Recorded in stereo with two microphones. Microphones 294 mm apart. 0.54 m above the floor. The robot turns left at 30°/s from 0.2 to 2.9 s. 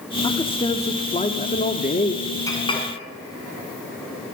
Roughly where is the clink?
Centre.